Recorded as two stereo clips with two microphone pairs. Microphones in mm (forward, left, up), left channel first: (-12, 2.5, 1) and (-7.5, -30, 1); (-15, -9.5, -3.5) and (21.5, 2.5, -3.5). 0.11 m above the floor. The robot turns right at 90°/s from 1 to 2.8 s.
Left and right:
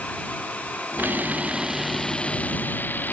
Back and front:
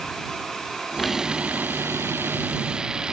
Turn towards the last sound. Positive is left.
turn(degrees=85)